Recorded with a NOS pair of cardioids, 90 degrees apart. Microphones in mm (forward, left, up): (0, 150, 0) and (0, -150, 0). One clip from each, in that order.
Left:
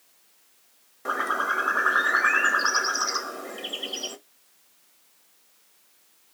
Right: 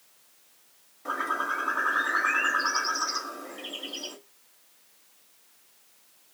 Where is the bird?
35° left, 0.7 m.